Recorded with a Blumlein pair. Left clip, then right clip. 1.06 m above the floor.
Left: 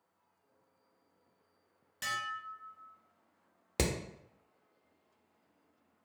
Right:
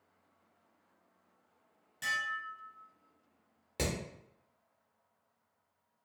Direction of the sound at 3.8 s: 30° left.